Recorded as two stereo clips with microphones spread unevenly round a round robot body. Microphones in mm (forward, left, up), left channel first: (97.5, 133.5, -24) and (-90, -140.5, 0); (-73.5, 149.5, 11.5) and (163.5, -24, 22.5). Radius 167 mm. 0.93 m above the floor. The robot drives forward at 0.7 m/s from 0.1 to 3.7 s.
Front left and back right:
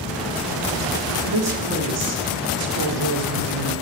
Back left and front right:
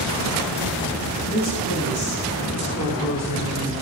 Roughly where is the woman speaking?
Behind.